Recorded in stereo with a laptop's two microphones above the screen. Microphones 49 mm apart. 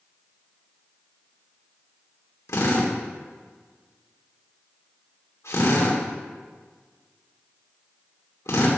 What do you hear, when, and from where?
2.5 s a drill: 80° left, 2.5 m